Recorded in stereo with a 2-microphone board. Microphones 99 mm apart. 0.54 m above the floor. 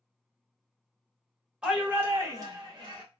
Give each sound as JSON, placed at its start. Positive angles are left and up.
{"t": 1.6, "sound": "a shout", "side_deg": -10, "distance_m": 1.3}